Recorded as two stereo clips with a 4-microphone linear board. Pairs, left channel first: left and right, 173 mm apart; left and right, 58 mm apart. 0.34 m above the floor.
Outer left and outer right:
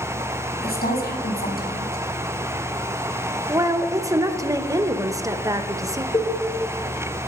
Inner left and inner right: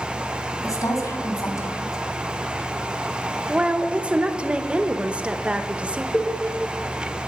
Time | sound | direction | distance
0.6 | a woman speaking | 65° left (ahead or behind) | 3 m
3.5 | a woman speaking | 20° right (ahead or behind) | 1.0 m
6.1 | a cowbell | 25° left (ahead or behind) | 3 m